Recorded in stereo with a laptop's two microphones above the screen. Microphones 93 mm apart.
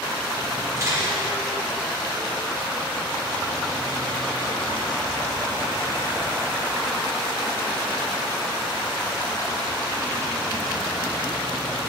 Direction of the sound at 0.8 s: 35° right (ahead or behind).